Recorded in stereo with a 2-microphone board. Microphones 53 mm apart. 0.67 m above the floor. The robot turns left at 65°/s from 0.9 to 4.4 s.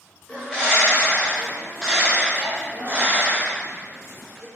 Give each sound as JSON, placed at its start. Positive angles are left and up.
{"t": 0.3, "sound": "a bird", "azimuth_deg": 40, "distance_m": 1.2}